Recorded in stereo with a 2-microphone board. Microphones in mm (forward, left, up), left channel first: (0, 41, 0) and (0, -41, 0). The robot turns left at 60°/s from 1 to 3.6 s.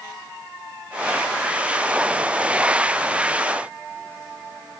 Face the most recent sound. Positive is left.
No sound to turn to.